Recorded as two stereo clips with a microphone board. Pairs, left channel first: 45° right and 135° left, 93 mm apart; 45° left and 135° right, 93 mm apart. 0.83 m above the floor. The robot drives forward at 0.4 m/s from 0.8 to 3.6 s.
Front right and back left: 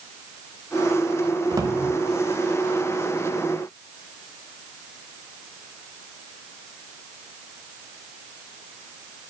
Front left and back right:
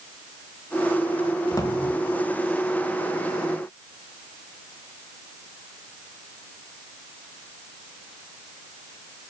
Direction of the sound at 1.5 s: 90° left.